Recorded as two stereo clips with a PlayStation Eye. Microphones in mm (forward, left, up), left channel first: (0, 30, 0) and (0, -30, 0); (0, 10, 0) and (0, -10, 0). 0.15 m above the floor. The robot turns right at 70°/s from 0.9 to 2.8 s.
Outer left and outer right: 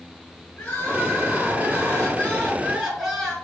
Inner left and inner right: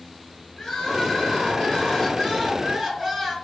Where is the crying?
45° left, 2.5 m; by 3.3 s straight behind, 2.5 m.